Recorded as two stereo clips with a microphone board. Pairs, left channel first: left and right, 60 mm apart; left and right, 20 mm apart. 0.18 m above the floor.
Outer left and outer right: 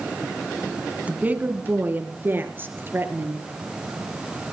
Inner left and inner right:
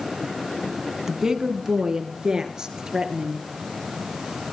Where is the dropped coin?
I don't hear a dropped coin.